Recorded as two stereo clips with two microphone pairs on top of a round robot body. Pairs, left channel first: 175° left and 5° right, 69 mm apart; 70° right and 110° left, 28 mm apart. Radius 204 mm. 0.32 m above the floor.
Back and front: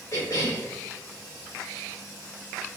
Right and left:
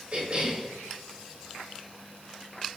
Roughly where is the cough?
Behind left.